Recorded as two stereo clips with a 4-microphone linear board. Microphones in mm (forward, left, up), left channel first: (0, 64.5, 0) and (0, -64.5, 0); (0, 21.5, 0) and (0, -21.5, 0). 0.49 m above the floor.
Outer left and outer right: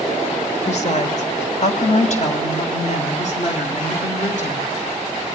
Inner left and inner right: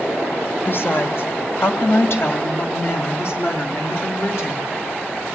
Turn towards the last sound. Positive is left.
turn(degrees=60)  # may be behind; listen again after turning